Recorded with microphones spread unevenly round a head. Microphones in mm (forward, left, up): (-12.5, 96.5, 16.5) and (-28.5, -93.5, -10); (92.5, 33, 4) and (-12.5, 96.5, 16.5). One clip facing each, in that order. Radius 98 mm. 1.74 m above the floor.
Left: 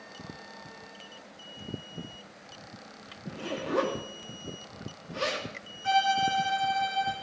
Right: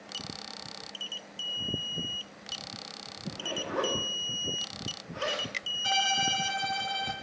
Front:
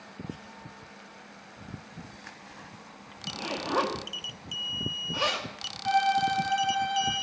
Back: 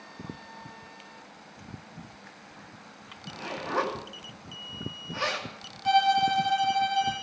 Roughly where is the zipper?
Ahead left.